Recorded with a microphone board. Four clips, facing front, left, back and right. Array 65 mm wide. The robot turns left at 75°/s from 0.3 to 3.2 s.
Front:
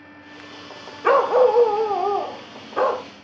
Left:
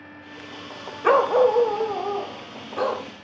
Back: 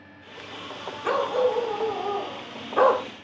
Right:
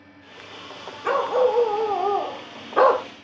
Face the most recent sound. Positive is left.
turn(degrees=-125)